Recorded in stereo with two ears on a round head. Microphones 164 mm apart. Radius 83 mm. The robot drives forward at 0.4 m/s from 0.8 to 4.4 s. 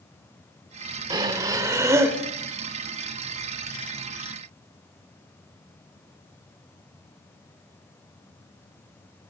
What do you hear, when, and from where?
1.1 s breathing: 25° right (ahead or behind), 0.8 m; by 2.2 s 15° right (ahead or behind), 1.1 m